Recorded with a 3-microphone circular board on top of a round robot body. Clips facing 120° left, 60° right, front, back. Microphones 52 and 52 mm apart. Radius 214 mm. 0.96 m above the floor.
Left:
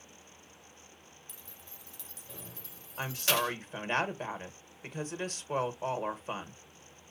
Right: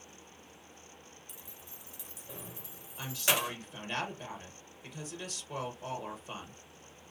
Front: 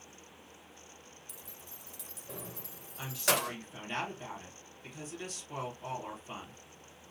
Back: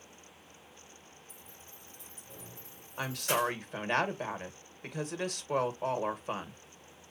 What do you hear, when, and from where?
1.3 s keys jangling: 15° left, 0.9 m
3.0 s a woman speaking: 155° left, 1.6 m